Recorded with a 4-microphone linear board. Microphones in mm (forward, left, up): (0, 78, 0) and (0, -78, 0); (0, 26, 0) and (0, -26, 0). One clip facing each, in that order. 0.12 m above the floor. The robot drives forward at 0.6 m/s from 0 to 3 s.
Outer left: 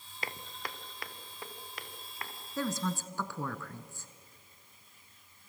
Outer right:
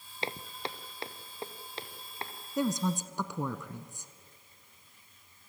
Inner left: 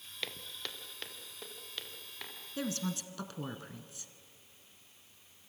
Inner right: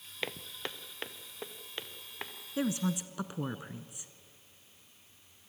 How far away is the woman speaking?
About 1.1 m.